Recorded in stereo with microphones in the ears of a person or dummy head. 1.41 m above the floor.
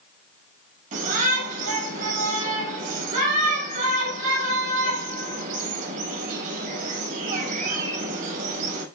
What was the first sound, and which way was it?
A shout, 40° right (ahead or behind).